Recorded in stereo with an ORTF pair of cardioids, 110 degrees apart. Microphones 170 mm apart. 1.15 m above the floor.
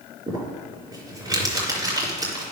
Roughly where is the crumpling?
Ahead.